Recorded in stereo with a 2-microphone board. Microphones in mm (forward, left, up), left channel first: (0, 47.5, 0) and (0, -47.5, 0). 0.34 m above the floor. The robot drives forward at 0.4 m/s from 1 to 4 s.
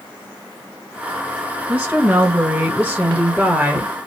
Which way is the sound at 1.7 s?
10° right (ahead or behind).